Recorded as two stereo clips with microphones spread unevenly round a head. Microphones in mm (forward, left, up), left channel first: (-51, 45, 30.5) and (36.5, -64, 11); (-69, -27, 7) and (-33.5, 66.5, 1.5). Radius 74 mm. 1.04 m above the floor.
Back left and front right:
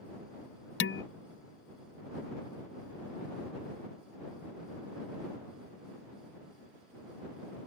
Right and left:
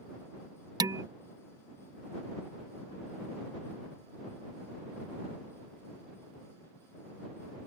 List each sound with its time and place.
0.8 s dishes clattering: 125° left